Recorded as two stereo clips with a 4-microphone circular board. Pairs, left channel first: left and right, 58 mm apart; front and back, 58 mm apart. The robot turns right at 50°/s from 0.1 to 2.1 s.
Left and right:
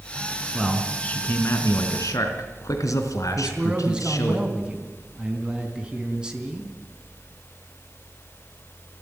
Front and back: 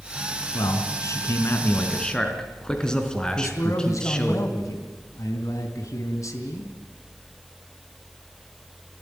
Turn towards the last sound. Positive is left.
turn(degrees=-15)